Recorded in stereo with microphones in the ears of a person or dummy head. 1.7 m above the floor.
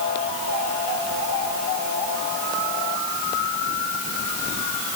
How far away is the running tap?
No running tap in this recording.